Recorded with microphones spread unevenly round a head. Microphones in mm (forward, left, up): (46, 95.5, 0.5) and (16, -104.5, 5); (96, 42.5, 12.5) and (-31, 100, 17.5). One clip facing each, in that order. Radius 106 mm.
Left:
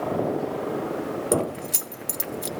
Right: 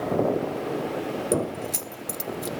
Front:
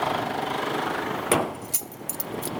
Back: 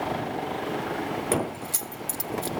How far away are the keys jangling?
About 0.5 m.